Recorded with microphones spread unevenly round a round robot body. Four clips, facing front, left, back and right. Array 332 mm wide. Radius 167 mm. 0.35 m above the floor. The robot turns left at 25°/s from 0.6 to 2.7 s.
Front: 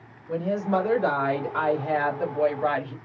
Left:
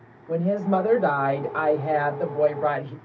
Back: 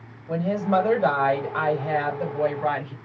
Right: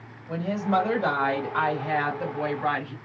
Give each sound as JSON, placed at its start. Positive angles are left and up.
{"t": 0.3, "sound": "a woman speaking", "azimuth_deg": 140, "distance_m": 1.9}